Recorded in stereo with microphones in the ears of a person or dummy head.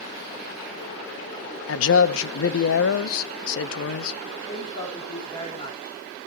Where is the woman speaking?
30° left (ahead or behind), 5 m.